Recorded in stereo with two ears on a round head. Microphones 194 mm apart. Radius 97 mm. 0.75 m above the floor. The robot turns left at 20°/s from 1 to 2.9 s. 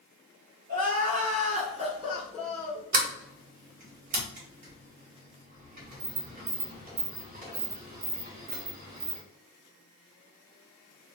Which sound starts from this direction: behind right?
Crying, at 0.7 s.